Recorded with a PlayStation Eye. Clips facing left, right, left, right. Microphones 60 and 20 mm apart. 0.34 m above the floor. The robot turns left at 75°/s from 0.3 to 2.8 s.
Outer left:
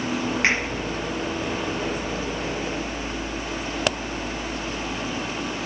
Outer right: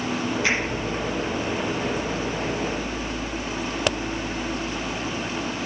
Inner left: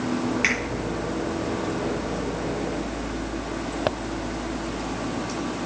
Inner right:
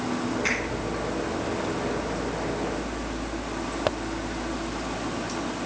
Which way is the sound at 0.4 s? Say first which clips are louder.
Outer left 2 dB, inner left 4 dB; 70° left (ahead or behind).